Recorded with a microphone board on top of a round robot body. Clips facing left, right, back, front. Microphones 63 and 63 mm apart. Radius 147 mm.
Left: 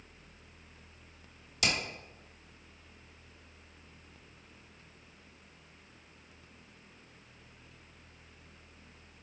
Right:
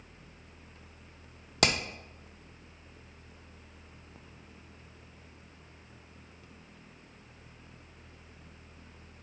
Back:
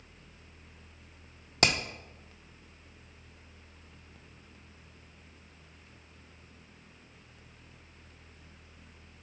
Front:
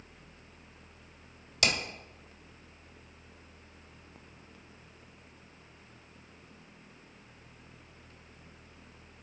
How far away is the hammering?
About 1.4 m.